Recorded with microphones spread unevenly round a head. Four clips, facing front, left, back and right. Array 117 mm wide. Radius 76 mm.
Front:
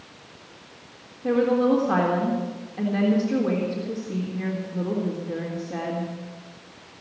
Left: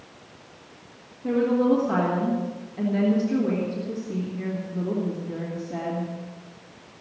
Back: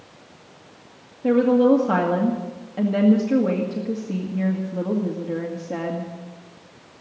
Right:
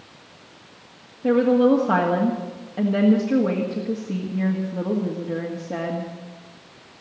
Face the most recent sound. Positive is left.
turn(degrees=-165)